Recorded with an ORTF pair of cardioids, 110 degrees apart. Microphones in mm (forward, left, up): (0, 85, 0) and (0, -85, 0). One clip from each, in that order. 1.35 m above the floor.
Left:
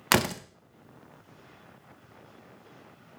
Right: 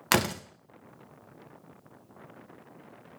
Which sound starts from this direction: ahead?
A door slam, at 0.1 s.